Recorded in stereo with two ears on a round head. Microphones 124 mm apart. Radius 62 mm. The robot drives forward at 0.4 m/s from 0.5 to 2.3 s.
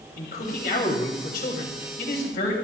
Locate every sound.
0.2 s a man speaking: 75° left (ahead or behind), 3.5 m; by 2.5 s 70° left (ahead or behind), 4 m